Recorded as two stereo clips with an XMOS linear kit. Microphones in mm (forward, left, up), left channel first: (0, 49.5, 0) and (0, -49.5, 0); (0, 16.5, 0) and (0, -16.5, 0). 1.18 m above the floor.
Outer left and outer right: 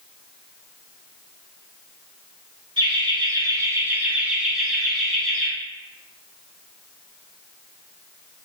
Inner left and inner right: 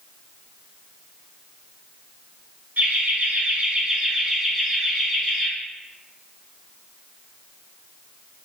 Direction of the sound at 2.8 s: 55° right (ahead or behind).